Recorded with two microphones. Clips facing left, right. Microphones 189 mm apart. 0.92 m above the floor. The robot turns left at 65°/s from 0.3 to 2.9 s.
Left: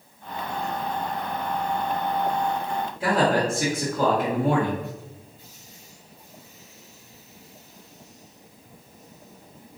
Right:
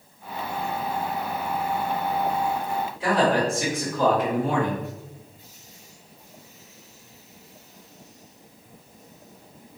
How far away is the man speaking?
About 1.3 m.